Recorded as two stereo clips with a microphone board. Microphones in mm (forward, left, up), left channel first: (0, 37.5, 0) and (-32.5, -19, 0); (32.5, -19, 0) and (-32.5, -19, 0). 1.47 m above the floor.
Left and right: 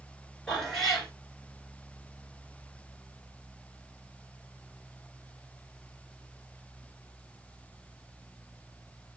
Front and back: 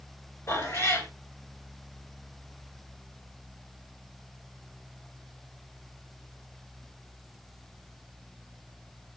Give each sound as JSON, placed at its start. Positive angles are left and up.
{"t": 0.5, "sound": "a cat meowing", "azimuth_deg": -20, "distance_m": 2.0}